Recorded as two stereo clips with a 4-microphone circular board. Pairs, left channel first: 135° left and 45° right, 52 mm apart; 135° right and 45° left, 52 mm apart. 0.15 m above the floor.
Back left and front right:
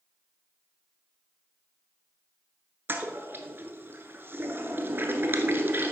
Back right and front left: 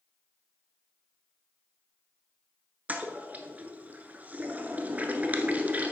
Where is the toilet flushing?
10° right, 1.0 m.